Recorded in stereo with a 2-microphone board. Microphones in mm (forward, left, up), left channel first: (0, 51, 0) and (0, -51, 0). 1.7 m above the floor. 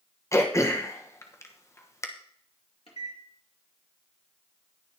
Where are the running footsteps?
I don't hear running footsteps.